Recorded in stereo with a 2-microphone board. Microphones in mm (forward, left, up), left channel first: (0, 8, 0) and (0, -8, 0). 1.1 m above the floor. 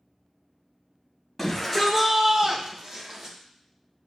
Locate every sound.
1.4 s a shout: 10° left (ahead or behind), 1.2 m; by 3.4 s 40° right (ahead or behind), 1.8 m